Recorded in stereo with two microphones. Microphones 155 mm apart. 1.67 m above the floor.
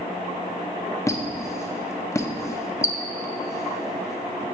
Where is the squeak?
20° left (ahead or behind), 0.5 m.